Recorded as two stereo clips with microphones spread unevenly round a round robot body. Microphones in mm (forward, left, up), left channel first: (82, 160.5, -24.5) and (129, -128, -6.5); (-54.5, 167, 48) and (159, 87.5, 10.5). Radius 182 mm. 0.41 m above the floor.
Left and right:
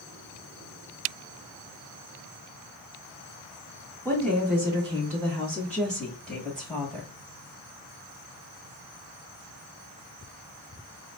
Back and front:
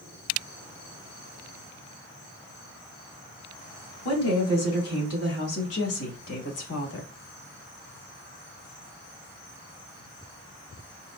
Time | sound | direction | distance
4.0 | a woman speaking | 175° right | 2.5 m